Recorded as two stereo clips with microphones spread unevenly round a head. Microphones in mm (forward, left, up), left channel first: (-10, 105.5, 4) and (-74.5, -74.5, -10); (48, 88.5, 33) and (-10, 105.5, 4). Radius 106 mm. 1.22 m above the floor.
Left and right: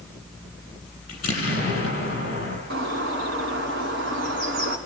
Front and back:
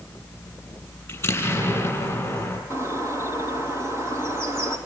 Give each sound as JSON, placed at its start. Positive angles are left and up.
{"t": 1.1, "sound": "an explosion", "azimuth_deg": 20, "distance_m": 9.0}
{"t": 2.7, "sound": "a bird", "azimuth_deg": -70, "distance_m": 3.0}